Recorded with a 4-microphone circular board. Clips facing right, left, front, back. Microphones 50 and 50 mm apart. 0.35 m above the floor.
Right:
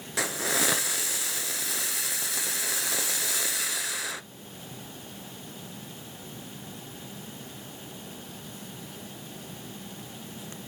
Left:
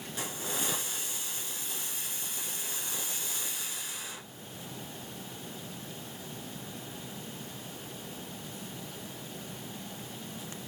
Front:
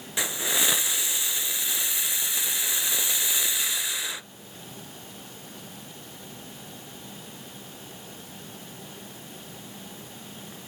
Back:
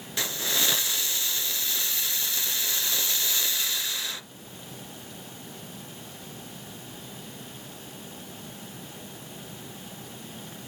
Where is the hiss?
75° right, 1.0 m.